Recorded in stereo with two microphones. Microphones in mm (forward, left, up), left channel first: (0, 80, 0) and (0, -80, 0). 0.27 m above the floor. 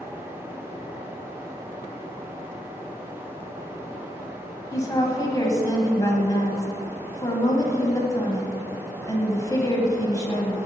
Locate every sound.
4.7 s a woman speaking: 20° left (ahead or behind), 1.3 m